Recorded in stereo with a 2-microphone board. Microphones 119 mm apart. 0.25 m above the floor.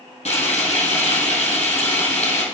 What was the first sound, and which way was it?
Frying, 75° left (ahead or behind).